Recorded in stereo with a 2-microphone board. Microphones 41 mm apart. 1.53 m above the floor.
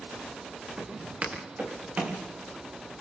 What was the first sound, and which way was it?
Footsteps, 35° right (ahead or behind).